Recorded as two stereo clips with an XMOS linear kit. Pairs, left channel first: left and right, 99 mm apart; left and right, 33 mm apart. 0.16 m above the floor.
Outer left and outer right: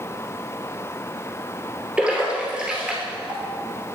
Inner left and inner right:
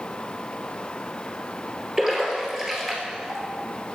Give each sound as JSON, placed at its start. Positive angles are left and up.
{"t": 2.0, "sound": "a splash", "side_deg": -10, "distance_m": 2.5}